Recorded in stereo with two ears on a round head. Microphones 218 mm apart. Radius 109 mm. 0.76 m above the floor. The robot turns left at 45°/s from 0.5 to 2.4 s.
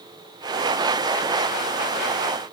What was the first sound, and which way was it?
Only background noise.